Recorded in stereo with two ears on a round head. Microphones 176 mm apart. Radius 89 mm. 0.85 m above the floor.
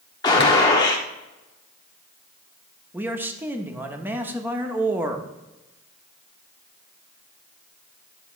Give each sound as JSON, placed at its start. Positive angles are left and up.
{"t": 0.2, "sound": "a gunshot", "side_deg": 20, "distance_m": 1.1}
{"t": 2.9, "sound": "a man speaking", "side_deg": -10, "distance_m": 0.9}